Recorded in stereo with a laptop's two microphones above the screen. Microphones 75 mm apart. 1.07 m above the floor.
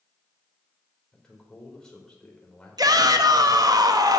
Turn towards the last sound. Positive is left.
turn(degrees=-65)  # may be behind; listen again after turning